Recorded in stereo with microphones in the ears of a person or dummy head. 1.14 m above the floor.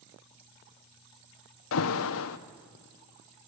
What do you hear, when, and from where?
1.7 s an alarm: 75° left (ahead or behind), 1.0 m